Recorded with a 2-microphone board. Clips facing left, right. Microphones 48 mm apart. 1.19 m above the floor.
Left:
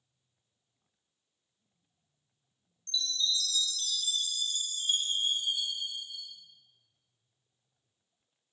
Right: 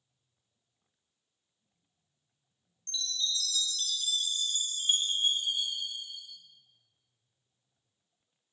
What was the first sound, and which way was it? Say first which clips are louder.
A chime: left 2 dB; 45° right (ahead or behind).